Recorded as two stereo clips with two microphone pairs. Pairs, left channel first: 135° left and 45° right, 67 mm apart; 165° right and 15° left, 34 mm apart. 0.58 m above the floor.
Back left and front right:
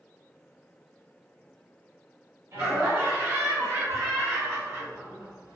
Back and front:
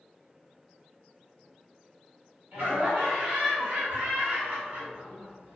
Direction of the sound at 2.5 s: 15° right.